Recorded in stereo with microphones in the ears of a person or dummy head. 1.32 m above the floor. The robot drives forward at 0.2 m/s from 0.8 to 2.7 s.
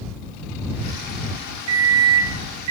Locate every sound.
1.7 s a microwave: 80° right, 0.5 m; by 2.7 s 60° right (ahead or behind), 0.6 m